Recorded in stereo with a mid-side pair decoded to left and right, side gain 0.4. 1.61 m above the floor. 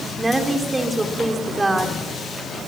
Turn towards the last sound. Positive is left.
turn(degrees=-20)